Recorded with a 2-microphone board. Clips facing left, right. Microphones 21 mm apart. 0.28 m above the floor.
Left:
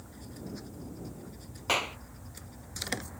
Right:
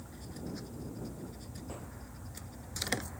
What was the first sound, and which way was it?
A clap, 75° left (ahead or behind).